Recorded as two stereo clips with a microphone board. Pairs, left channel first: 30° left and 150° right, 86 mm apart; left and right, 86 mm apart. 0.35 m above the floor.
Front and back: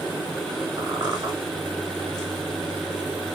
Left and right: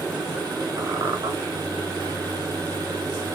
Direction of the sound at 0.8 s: 125° right.